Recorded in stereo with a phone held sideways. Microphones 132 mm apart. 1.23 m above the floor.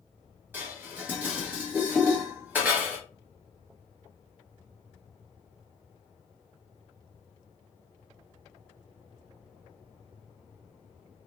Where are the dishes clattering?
15° right (ahead or behind), 1.0 m.